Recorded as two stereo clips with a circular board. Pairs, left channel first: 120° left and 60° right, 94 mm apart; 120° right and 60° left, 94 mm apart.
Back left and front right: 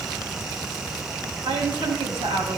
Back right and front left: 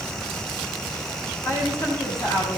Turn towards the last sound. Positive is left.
turn(degrees=-70)